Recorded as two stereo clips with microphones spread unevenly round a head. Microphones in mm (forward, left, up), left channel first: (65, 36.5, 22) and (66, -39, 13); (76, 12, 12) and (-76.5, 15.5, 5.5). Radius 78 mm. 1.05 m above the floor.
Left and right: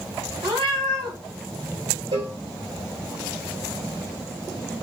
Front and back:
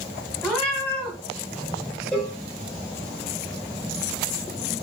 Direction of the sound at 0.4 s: 85° right.